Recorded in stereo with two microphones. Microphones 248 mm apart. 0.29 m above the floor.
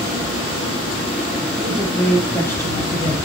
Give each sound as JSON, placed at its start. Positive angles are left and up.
{"t": 1.6, "sound": "a woman speaking", "side_deg": -5, "distance_m": 4.5}